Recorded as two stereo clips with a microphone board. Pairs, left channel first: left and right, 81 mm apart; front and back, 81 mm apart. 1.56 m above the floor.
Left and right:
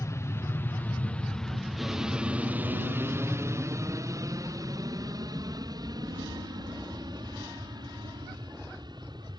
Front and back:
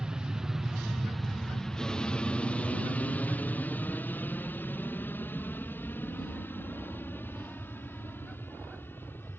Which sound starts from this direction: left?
An aircraft, at 0.0 s.